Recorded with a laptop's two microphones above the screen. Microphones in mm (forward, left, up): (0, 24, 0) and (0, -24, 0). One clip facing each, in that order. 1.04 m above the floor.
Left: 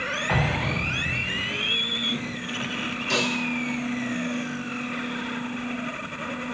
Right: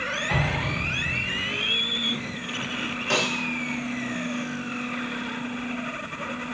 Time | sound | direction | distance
0.3 | an explosion | 30° left (ahead or behind) | 0.8 m
3.1 | a snare drum | 35° right (ahead or behind) | 0.7 m